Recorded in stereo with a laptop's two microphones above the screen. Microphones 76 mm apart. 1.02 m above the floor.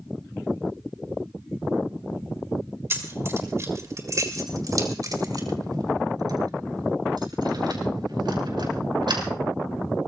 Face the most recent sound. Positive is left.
turn(degrees=-75)  # may be behind; listen again after turning